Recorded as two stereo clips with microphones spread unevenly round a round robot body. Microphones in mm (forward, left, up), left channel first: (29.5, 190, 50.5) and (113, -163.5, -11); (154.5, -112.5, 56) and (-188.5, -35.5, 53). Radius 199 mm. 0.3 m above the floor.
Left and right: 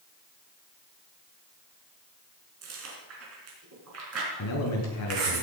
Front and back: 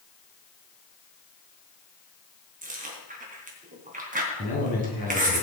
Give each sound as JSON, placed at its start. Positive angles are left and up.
{"t": 2.6, "sound": "chewing", "azimuth_deg": -125, "distance_m": 3.5}
{"t": 4.4, "sound": "a man speaking", "azimuth_deg": 55, "distance_m": 4.0}